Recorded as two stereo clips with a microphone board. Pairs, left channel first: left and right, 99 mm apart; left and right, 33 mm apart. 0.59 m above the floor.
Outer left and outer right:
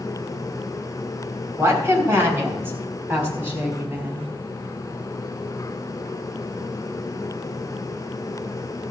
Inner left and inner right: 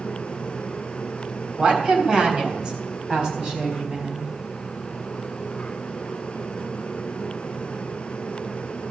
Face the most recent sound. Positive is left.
turn(degrees=-20)  # may be behind; listen again after turning